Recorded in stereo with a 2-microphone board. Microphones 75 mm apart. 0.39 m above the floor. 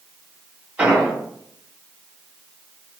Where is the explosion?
15° right (ahead or behind), 1.6 m.